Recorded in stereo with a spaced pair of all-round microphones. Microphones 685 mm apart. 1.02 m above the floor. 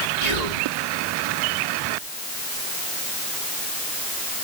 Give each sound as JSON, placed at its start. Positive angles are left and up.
{"t": 0.2, "sound": "whispering", "side_deg": -70, "distance_m": 2.5}